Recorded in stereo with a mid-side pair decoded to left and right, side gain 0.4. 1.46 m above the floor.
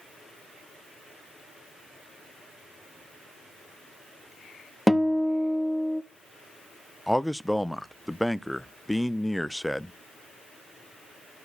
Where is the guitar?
5° right, 1.0 m.